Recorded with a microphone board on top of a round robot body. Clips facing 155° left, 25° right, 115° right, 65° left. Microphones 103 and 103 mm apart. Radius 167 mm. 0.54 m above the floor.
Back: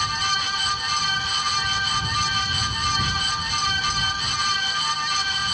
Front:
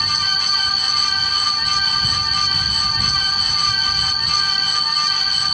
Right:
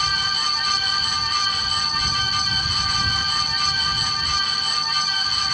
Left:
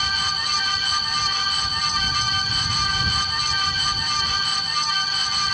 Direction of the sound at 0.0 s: 40° right.